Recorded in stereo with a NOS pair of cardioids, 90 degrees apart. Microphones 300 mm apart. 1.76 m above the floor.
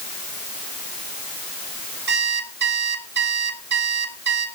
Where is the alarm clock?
35° right, 3 m.